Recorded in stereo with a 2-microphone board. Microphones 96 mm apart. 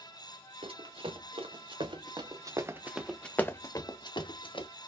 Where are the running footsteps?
70° right (ahead or behind), 1.5 m; by 4.7 s 60° left (ahead or behind), 1.0 m.